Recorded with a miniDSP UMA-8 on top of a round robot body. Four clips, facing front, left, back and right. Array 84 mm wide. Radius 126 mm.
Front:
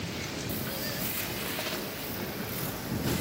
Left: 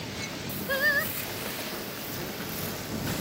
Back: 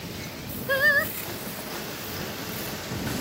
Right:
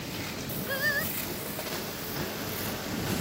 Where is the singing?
160° left.